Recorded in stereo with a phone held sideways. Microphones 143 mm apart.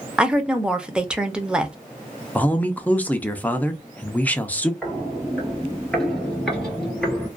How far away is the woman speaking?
About 0.6 m.